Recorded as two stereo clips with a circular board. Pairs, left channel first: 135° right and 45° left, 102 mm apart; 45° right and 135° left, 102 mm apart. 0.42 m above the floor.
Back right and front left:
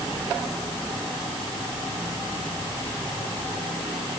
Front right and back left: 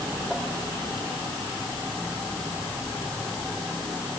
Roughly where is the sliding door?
I don't hear a sliding door.